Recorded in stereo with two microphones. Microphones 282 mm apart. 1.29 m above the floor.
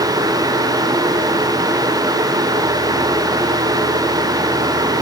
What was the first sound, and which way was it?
Only background noise.